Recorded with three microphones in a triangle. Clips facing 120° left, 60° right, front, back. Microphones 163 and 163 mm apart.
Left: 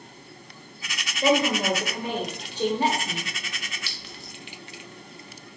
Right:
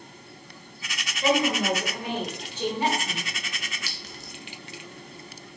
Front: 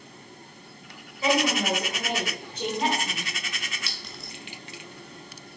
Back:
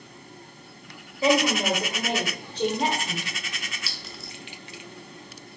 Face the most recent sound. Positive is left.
turn(degrees=-95)